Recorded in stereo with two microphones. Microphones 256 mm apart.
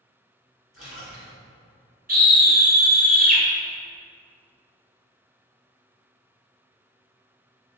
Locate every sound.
0.7 s a splash: 55° left (ahead or behind), 1.8 m
2.1 s a scream: 35° right (ahead or behind), 1.7 m